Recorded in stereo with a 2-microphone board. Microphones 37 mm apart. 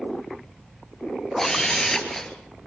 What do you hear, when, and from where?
1.4 s a camera shutter: 10° left (ahead or behind), 3 m